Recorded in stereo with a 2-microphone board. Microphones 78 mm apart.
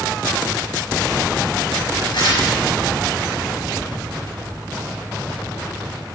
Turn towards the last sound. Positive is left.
turn(degrees=80)